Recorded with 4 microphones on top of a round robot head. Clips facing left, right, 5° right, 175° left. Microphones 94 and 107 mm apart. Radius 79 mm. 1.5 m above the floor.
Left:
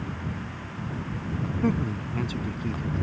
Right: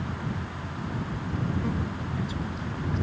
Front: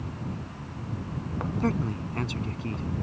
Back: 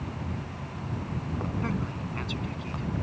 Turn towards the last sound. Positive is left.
turn(degrees=40)